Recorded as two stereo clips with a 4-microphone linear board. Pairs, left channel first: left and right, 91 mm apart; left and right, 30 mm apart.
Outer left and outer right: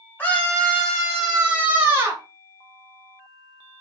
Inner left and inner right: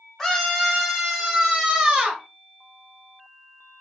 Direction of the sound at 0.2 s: 20° left (ahead or behind).